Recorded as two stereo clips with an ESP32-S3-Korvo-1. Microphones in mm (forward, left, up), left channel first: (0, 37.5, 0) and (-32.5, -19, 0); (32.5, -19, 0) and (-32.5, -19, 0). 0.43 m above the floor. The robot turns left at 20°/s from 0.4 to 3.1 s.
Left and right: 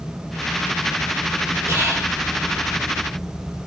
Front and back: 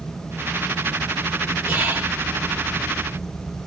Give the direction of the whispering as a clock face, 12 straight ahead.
4 o'clock.